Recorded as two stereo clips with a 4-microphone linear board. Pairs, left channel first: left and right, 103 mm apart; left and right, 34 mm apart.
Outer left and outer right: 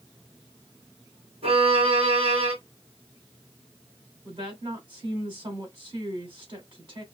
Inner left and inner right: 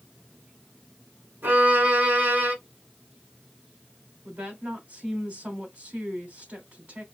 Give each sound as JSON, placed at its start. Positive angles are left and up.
{"t": 1.4, "sound": "a violin", "side_deg": -75, "distance_m": 2.0}
{"t": 4.2, "sound": "a woman speaking", "side_deg": -55, "distance_m": 2.5}